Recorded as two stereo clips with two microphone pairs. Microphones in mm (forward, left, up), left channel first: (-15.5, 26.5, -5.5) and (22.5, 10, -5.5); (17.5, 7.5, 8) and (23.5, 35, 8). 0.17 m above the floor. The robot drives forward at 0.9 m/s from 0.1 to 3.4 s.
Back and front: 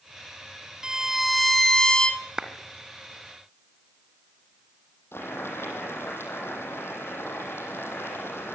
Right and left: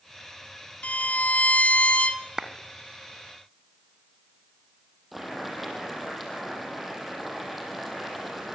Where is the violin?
90° right, 1.2 m; by 2.2 s 140° right, 1.7 m.